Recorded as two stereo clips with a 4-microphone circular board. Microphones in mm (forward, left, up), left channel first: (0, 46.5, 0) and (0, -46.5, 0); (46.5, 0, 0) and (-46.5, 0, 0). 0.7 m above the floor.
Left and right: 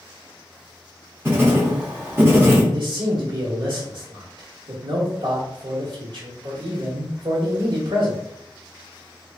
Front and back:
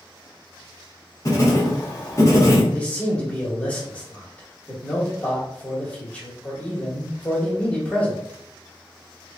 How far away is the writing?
About 1.3 m.